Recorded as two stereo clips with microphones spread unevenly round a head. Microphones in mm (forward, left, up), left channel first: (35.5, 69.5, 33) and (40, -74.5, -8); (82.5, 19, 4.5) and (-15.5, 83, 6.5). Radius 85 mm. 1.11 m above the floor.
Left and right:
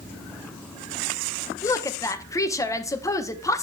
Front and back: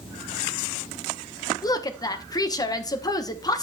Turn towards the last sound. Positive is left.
turn(degrees=15)